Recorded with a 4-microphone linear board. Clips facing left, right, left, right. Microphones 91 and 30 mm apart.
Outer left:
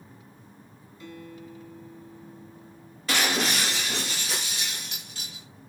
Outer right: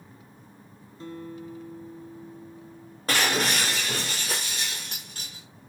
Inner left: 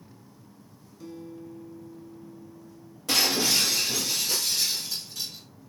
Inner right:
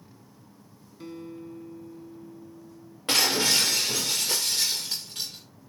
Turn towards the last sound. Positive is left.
turn(degrees=-40)  # may be behind; listen again after turning